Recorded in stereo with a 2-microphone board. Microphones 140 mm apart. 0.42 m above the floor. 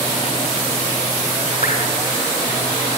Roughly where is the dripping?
Left.